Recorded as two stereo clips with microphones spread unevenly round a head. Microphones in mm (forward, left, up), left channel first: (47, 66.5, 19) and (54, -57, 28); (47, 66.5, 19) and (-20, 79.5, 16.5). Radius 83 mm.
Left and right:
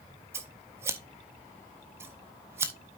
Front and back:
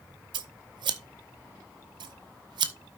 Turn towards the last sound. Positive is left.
turn(degrees=-160)